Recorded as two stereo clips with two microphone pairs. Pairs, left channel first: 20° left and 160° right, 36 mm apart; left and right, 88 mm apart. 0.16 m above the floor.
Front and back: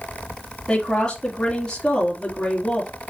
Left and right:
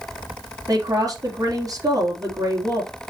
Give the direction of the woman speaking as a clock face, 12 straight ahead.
1 o'clock.